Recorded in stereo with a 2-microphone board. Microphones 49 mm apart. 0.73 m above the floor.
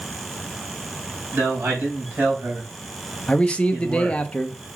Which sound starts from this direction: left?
A man speaking, at 3.3 s.